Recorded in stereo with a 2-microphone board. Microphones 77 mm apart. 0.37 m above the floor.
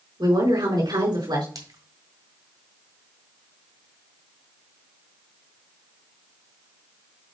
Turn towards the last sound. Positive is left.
turn(degrees=-55)  # may be behind; listen again after turning